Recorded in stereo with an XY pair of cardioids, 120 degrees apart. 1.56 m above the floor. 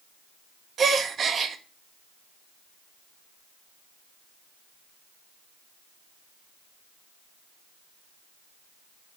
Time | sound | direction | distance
0.8 | a gasp | 40° right | 2 m